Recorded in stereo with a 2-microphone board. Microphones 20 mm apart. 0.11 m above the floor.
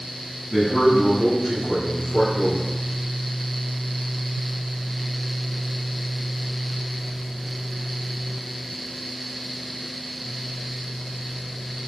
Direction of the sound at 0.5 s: 10° right (ahead or behind).